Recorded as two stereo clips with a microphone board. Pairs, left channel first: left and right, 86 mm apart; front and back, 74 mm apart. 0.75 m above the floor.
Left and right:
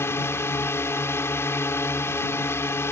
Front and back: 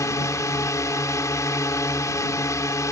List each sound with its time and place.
0.0 s a drone: 35° left